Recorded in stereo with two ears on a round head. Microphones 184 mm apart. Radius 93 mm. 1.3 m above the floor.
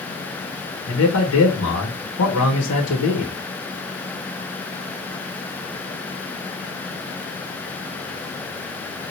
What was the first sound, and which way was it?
A man speaking, 80° left.